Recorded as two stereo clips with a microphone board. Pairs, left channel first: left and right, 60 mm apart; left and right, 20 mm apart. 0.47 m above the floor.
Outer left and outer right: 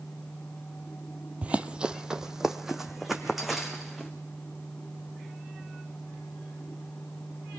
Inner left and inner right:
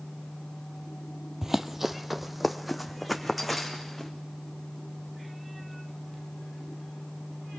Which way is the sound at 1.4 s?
20° right (ahead or behind).